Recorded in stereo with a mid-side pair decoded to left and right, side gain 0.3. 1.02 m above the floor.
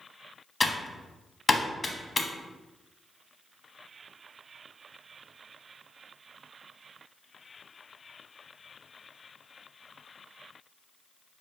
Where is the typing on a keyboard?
40° left, 0.7 m.